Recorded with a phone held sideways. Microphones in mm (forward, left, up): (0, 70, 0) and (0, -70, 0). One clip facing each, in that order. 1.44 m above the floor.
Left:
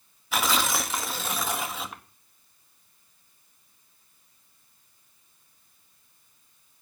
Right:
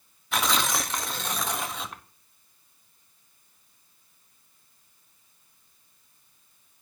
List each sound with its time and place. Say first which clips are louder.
0.3 s tearing paper: even; centre (ahead or behind), 0.8 m